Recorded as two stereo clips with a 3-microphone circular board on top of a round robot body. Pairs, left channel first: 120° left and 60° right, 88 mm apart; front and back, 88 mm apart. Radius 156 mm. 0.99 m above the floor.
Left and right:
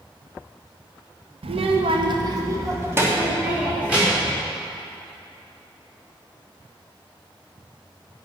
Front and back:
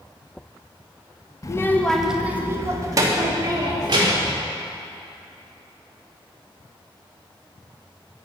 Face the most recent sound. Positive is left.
turn(degrees=-140)